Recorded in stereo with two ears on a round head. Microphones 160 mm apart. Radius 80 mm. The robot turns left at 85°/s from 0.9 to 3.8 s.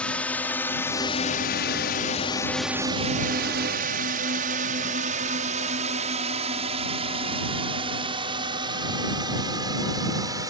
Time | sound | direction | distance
0.0 | a drone | 5° left (ahead or behind) | ?